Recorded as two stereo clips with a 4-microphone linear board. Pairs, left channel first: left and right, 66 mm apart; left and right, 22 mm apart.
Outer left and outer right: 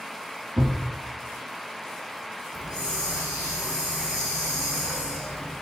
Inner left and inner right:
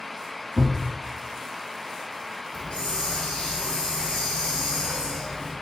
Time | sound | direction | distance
0.6 | a thud | 80° right | 1.2 m
2.5 | a hiss | 70° left (ahead or behind) | 1.4 m